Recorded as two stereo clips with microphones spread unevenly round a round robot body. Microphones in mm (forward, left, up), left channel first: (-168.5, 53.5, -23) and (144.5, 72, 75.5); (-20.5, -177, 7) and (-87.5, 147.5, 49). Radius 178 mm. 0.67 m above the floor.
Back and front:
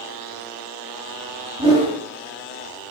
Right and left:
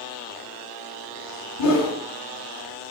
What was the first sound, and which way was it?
A whoosh, 85° right.